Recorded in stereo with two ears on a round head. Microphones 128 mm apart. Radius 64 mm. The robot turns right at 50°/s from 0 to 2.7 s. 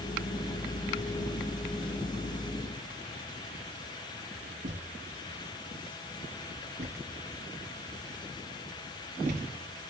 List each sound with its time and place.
4.6 s a thud: 55° right (ahead or behind), 6 m